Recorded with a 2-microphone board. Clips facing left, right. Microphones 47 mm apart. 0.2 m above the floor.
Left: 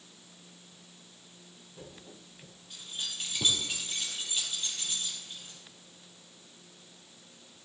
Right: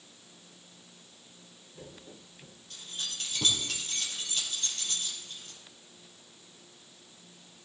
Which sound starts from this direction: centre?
Keys jangling, at 2.7 s.